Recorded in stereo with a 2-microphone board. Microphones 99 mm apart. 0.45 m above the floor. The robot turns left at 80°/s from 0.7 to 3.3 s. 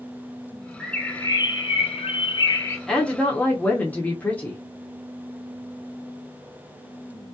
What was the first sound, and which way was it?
A bird, straight behind.